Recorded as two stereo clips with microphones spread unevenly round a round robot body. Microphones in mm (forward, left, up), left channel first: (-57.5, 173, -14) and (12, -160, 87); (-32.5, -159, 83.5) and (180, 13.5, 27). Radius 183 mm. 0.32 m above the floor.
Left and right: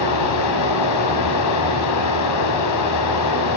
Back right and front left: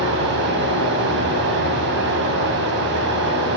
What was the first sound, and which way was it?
Running water, 80° left.